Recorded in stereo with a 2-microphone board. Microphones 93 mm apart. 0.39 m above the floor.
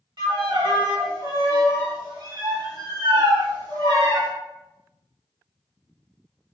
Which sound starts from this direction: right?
A violin, at 0.2 s.